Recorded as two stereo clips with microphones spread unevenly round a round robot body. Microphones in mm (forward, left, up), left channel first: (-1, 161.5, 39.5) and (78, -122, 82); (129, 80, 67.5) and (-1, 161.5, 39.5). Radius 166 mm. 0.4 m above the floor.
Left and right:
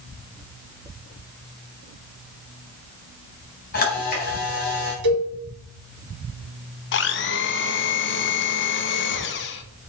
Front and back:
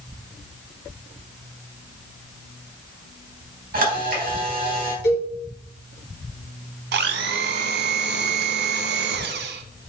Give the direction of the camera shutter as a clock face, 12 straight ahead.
7 o'clock.